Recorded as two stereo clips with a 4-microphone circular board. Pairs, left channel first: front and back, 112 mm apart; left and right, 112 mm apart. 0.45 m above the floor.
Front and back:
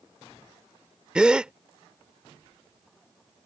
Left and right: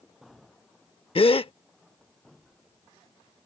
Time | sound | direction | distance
1.1 | a gasp | 100° left | ?